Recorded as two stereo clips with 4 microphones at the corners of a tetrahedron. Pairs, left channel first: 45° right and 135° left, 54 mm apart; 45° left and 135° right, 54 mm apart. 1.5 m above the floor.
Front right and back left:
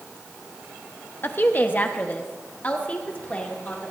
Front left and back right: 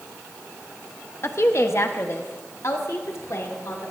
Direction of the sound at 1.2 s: 5° left.